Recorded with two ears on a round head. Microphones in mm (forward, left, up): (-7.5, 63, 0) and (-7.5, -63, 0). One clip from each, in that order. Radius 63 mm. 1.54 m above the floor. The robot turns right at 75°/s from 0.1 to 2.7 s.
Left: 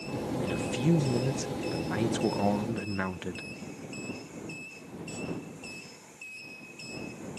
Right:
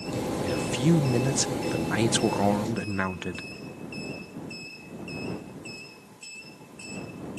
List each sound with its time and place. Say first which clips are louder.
0.4 s a man speaking: right 4 dB; 175° left; by 3.5 s 15° right